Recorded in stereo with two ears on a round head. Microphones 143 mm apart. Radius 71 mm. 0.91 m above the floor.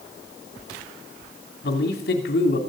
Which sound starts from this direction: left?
A man speaking, at 1.6 s.